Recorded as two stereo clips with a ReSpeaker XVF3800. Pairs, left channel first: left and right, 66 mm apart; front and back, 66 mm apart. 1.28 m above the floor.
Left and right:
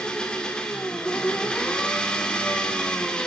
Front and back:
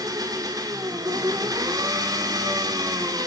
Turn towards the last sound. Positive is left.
turn(degrees=165)